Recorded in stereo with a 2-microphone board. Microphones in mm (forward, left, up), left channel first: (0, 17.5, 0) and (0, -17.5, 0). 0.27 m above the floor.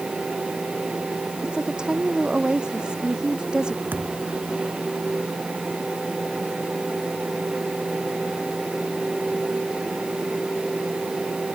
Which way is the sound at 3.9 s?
60° right (ahead or behind).